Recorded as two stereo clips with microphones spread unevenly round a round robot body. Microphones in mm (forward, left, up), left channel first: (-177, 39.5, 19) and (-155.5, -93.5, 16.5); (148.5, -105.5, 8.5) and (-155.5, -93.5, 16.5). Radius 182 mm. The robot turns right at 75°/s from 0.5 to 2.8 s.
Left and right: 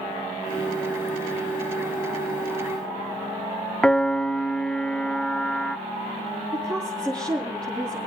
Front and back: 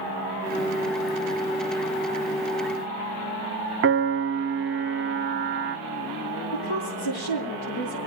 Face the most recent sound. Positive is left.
turn(degrees=20)